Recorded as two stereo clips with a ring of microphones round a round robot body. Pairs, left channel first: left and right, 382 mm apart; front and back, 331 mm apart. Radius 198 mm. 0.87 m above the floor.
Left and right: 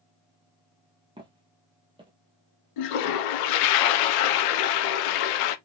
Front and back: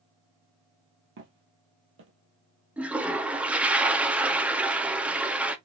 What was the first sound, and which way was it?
Footsteps, 160° right.